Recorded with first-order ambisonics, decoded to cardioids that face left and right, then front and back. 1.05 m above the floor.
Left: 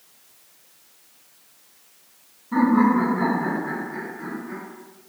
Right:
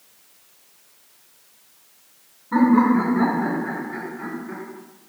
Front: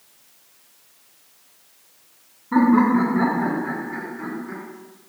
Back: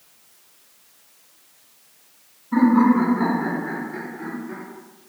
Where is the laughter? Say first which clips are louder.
Right 2 dB, even; 25° right, 0.9 m.